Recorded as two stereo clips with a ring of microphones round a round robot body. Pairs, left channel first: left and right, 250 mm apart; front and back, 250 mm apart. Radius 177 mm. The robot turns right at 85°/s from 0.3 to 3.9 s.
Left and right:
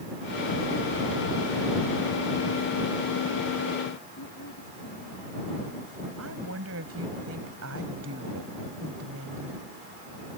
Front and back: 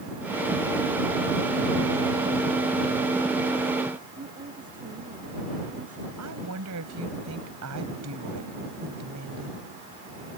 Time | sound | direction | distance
4.2 | a woman speaking | 120° left | ?
6.2 | a woman speaking | 140° right | ?